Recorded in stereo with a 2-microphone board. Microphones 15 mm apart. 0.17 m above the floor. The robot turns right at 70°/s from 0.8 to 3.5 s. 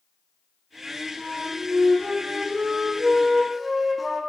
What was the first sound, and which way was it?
A flute, 165° right.